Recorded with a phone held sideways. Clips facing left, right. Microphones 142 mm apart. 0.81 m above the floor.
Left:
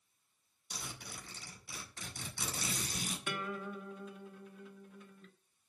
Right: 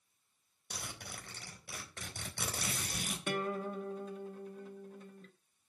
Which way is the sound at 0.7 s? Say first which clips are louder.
Right 1 dB; 60° right (ahead or behind).